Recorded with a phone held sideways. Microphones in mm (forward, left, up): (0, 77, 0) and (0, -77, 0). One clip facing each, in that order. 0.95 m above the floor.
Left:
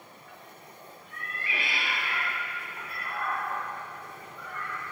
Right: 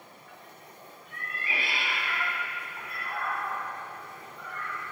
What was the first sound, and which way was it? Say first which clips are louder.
A cat meowing: right 1 dB; 45° right (ahead or behind).